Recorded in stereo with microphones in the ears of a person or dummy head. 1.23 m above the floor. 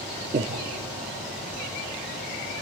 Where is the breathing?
30° right (ahead or behind), 0.8 m.